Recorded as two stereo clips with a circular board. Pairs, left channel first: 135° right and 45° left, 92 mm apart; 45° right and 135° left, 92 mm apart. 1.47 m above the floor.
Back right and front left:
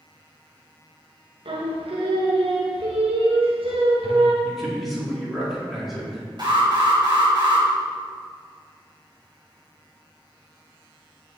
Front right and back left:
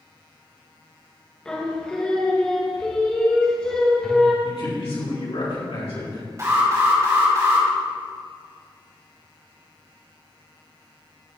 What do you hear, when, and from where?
1.4 s singing: 35° left, 1.4 m
4.4 s a man speaking: 45° right, 3 m
6.4 s an alarm: 80° left, 3.5 m